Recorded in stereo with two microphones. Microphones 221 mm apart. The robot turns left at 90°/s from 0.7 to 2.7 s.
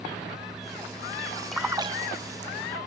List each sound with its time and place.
1.5 s a splash: centre (ahead or behind), 0.5 m; by 2.5 s 60° right (ahead or behind), 0.5 m